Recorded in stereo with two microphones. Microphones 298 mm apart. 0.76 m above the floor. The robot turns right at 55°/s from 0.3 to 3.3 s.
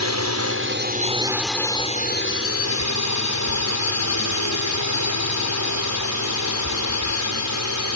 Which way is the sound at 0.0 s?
65° right.